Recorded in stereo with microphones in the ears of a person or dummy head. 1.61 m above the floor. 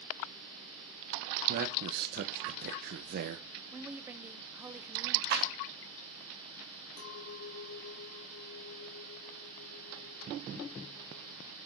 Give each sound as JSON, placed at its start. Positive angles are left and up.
{"t": 1.5, "sound": "a man speaking", "side_deg": -55, "distance_m": 0.9}
{"t": 3.7, "sound": "a woman speaking", "side_deg": -10, "distance_m": 0.8}
{"t": 5.3, "sound": "a clap", "side_deg": -50, "distance_m": 3.0}
{"t": 7.0, "sound": "a clink", "side_deg": 65, "distance_m": 2.0}